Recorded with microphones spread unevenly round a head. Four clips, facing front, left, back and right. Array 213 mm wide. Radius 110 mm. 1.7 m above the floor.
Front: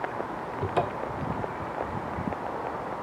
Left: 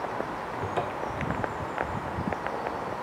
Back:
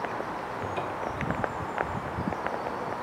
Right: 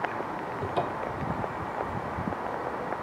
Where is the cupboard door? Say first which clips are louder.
Right 1 dB, front 6 dB; straight ahead, 0.6 m.